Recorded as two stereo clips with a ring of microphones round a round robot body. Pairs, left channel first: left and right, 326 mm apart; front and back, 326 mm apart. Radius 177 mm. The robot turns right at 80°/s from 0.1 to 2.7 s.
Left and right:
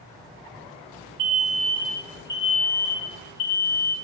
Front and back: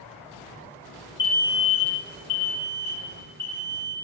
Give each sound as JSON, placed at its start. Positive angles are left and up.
{"t": 1.2, "sound": "an alarm", "azimuth_deg": -60, "distance_m": 1.2}